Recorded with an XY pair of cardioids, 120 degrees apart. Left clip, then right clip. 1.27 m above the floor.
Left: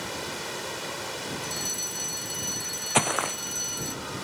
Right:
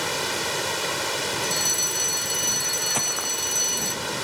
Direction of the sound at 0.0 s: 50° right.